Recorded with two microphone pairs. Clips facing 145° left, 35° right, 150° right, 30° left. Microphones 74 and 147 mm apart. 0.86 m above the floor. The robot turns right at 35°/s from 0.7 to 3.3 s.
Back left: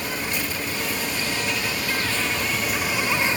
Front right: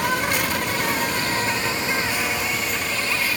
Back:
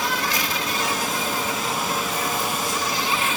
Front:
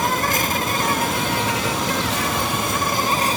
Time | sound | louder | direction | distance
0.0 | an insect | front right 6 dB, front 4 dB | 5° right | ?